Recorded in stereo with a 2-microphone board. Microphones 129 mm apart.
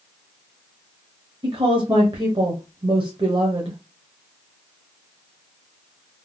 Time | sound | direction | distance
1.4 | a woman speaking | 40° right (ahead or behind) | 0.7 m